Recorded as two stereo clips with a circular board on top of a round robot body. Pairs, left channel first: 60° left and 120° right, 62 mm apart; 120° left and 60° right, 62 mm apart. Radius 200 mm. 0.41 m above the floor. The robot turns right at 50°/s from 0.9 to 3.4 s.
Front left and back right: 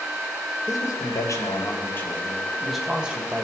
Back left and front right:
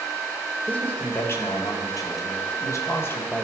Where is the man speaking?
60° left, 3 m; by 3.4 s 175° right, 3 m.